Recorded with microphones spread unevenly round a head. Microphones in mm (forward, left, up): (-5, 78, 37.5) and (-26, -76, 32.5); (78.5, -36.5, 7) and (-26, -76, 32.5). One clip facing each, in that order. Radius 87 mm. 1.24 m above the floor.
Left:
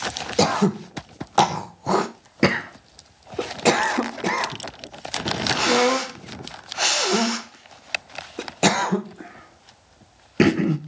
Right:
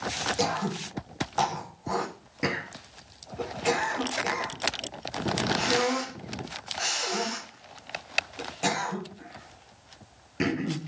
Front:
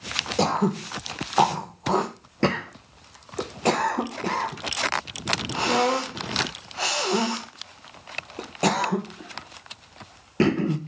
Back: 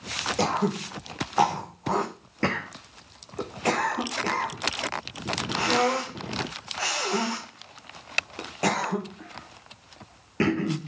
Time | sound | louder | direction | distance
0.4 | throat clearing | left 11 dB, front 3 dB | 90° left | 1.2 m